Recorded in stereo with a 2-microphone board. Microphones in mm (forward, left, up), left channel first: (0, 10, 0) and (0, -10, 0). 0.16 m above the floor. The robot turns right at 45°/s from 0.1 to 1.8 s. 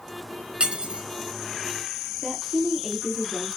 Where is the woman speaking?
20° right (ahead or behind), 3 m.